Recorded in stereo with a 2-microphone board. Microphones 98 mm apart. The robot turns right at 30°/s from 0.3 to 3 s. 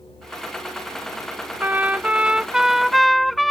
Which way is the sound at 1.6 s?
40° right.